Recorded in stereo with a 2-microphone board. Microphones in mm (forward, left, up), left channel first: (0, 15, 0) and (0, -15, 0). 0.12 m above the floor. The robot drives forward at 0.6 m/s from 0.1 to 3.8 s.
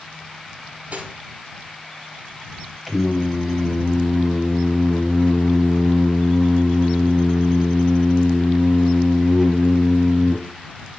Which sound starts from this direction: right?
Cutlery clinking, at 0.9 s.